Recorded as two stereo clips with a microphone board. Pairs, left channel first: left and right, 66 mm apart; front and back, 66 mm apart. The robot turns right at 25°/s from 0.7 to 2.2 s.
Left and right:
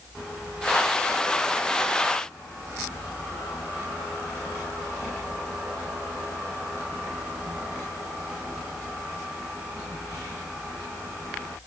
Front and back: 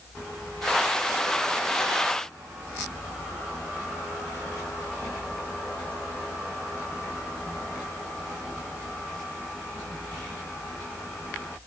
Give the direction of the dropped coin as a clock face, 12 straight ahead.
No dropped coin in this recording.